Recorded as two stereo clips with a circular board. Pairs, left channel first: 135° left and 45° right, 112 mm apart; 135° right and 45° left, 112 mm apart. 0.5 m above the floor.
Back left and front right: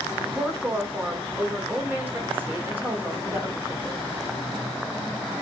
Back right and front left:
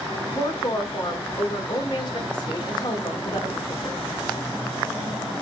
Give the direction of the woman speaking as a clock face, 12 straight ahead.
4 o'clock.